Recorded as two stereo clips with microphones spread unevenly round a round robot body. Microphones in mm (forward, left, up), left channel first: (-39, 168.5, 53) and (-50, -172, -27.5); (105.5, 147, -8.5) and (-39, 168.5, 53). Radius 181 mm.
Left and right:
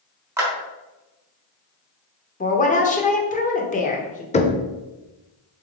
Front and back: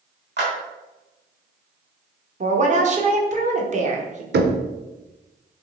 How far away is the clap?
About 3 m.